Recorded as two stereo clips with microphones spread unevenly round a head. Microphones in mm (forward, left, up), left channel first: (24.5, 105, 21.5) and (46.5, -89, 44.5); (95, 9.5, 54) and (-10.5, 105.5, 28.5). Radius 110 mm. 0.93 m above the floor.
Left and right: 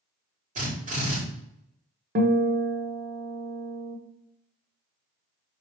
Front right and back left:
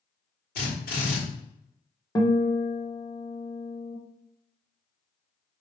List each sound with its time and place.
0.6 s a drill: 30° right, 4 m
2.1 s a guitar: 110° right, 1.1 m